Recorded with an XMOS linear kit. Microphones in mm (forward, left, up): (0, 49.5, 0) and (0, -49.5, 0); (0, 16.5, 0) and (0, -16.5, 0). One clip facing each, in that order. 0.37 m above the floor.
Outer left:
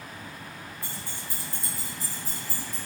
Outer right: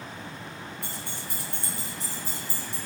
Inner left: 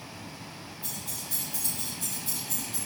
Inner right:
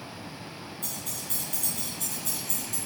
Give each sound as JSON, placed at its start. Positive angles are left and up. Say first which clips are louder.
{"t": 0.8, "sound": "keys jangling", "louder": "outer right 2 dB, even", "side_deg": -70, "distance_m": 3.5}